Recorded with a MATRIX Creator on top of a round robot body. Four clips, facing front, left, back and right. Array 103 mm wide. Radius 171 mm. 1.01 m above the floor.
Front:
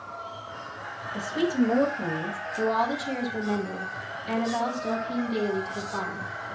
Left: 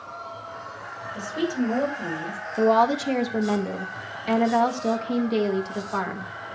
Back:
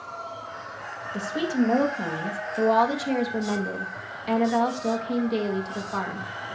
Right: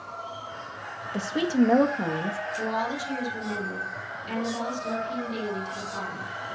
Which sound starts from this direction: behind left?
A woman speaking, at 2.6 s.